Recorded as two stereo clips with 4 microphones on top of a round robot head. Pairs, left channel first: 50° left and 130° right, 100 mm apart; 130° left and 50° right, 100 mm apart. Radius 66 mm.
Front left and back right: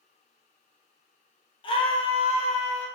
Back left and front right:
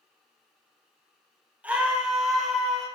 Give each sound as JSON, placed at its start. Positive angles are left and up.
{"t": 1.6, "sound": "a scream", "azimuth_deg": 25, "distance_m": 2.5}